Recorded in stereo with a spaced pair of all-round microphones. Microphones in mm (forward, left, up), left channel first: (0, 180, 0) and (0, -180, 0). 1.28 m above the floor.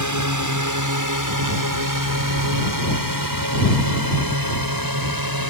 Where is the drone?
55° right (ahead or behind); by 5.5 s 75° right (ahead or behind).